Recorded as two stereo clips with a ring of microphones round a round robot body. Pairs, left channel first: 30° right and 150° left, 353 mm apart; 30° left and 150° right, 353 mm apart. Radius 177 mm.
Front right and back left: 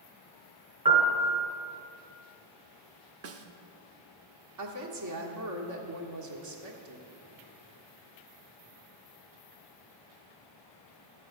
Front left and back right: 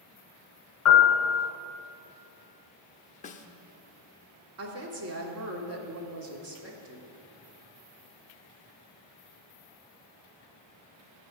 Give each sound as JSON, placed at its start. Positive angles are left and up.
{"t": 0.8, "sound": "a piano", "azimuth_deg": 80, "distance_m": 2.0}
{"t": 3.2, "sound": "a snare drum", "azimuth_deg": 100, "distance_m": 0.8}
{"t": 4.6, "sound": "a woman speaking", "azimuth_deg": 170, "distance_m": 1.7}